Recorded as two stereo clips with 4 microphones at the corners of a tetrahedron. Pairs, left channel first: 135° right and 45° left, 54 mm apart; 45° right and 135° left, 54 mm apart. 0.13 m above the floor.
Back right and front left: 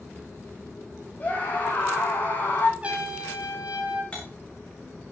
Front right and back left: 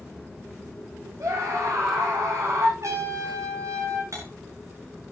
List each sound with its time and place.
1.2 s a scream: 165° left, 8.5 m
2.8 s a trumpet: 110° left, 7.5 m
4.1 s cutlery clinking: 155° left, 7.5 m